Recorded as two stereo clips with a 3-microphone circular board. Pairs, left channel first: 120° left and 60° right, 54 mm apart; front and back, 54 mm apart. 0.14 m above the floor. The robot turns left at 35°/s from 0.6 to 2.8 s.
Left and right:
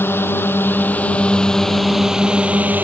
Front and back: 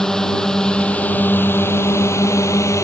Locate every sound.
0.0 s a drone: 80° left; by 2.9 s 10° right